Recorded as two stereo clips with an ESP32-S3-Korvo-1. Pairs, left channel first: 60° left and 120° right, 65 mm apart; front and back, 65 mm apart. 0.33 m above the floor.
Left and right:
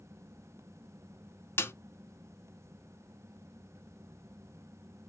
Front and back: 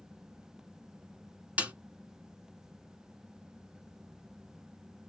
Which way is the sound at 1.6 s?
110° left.